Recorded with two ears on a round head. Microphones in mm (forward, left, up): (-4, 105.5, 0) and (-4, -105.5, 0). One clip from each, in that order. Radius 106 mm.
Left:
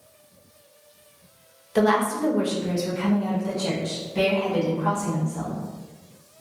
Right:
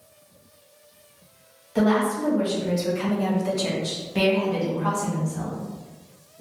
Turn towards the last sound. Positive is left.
turn(degrees=-80)